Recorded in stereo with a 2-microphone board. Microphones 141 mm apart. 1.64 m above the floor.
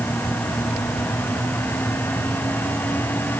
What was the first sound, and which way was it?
Only background noise.